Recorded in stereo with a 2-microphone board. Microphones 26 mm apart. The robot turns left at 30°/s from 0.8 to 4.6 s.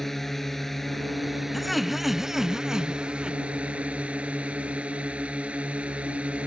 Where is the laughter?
10° left; by 3.4 s 45° right.